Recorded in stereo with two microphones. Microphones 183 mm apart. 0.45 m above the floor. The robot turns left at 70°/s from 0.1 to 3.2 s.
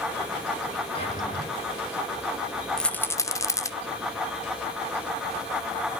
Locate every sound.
0.9 s a drawer: 150° left, 5 m; by 1.5 s 110° left, 5 m
2.8 s a rattle: 5° left (ahead or behind), 0.5 m; by 3.7 s 20° left (ahead or behind), 0.5 m